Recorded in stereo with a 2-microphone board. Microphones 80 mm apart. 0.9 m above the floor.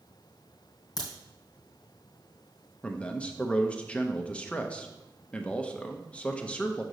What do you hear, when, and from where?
1.0 s a crack: 55° left (ahead or behind), 2.5 m
2.8 s a man speaking: 15° left (ahead or behind), 0.7 m